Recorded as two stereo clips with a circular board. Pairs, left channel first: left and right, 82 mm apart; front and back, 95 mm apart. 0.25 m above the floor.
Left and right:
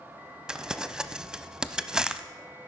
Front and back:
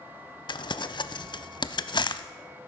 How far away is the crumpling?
About 0.6 m.